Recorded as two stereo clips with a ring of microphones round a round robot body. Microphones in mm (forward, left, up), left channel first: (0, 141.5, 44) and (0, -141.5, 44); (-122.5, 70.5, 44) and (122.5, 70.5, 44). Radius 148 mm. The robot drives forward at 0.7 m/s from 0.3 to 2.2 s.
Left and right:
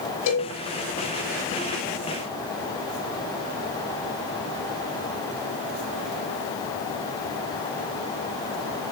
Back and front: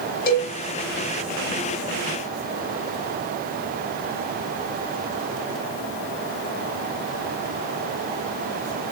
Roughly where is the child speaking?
No child speaking in this recording.